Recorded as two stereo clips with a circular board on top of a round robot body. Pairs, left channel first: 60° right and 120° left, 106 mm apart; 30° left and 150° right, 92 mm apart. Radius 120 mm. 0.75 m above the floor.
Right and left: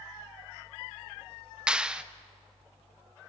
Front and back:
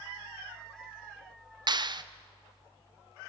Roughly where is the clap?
Behind.